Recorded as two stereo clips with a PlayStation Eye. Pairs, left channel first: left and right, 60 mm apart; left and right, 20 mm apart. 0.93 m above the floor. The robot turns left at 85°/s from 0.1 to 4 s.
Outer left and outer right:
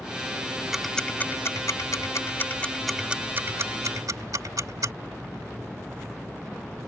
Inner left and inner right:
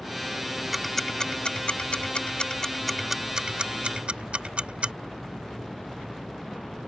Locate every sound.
0.7 s ticking: 10° right (ahead or behind); by 4.9 s 75° right (ahead or behind)